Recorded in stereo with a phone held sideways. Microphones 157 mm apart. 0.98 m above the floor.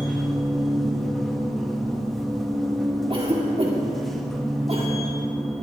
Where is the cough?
35° right (ahead or behind), 2.0 m.